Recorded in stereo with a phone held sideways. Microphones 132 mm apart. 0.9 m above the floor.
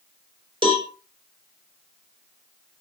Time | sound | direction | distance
0.6 | a cowbell | 40° right (ahead or behind) | 4 m